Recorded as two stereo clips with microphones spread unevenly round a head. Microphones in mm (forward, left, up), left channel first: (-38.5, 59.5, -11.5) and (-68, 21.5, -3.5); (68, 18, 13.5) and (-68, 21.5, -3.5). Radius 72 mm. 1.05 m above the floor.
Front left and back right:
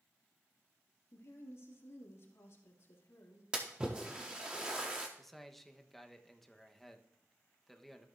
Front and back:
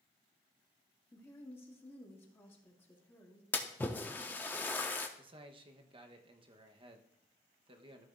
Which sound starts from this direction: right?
A splash, at 3.5 s.